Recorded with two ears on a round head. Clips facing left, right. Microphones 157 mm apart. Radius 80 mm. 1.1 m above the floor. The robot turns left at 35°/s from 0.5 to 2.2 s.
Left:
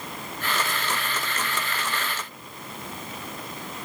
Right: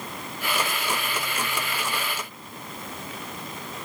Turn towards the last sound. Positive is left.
No sound to turn to.